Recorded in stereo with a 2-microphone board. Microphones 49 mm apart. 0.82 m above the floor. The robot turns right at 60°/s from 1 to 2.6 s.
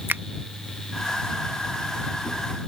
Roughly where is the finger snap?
Right.